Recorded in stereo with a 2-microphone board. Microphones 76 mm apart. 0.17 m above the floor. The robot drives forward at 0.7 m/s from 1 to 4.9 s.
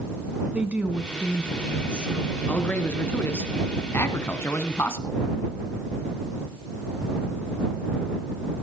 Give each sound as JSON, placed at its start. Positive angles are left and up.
{"t": 0.5, "sound": "a woman speaking", "side_deg": -15, "distance_m": 1.3}
{"t": 2.5, "sound": "a man speaking", "side_deg": 20, "distance_m": 1.8}